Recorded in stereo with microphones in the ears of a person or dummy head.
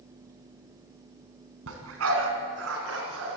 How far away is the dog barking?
About 3.5 m.